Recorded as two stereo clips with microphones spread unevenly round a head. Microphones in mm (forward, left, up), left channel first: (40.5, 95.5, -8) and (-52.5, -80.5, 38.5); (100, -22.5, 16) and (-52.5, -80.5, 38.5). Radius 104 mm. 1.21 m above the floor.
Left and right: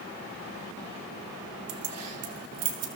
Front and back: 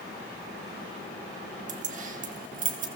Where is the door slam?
I don't hear a door slam.